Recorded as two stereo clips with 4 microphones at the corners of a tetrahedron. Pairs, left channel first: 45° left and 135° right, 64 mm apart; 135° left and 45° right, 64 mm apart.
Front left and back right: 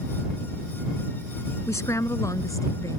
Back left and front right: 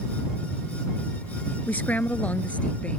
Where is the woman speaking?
75° left; by 3.0 s 65° left.